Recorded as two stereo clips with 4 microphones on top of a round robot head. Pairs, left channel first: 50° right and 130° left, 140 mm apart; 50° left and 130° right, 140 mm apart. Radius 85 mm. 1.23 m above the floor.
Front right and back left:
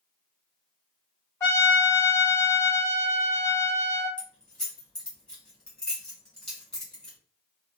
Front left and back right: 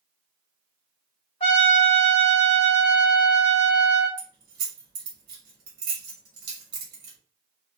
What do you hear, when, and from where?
1.4 s a trumpet: 15° left, 1.2 m
4.2 s keys jangling: 135° right, 1.5 m